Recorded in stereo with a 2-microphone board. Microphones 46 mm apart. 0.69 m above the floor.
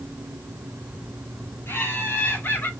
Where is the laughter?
70° left (ahead or behind), 2 m; by 2.7 s 55° left (ahead or behind), 1.5 m.